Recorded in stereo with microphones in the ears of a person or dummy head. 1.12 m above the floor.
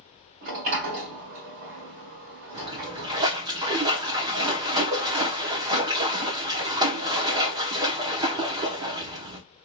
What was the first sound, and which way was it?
A sliding door, 55° right (ahead or behind).